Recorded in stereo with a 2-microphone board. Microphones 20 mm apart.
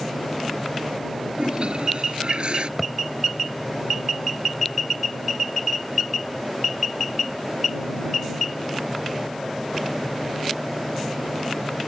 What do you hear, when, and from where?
1.4 s a toilet flushing: 60° right (ahead or behind)
2.8 s a thud: 10° right (ahead or behind)